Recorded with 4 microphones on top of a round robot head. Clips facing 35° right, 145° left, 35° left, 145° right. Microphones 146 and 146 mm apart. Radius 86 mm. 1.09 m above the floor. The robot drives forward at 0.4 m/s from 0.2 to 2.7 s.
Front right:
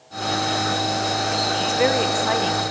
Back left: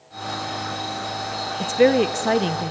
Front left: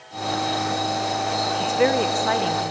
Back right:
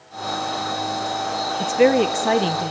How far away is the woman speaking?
About 0.7 m.